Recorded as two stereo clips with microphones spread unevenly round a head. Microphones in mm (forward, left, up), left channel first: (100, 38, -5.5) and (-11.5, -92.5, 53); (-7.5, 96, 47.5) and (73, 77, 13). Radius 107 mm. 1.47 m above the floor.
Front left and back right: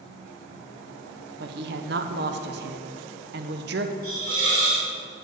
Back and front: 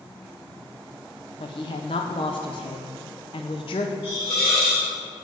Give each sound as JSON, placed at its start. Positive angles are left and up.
{"t": 1.4, "sound": "a woman speaking", "azimuth_deg": -160, "distance_m": 0.5}
{"t": 4.0, "sound": "a hiss", "azimuth_deg": -170, "distance_m": 2.5}